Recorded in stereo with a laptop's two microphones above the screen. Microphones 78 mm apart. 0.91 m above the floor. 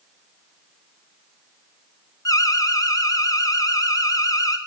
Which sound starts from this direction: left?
An alarm, at 2.2 s.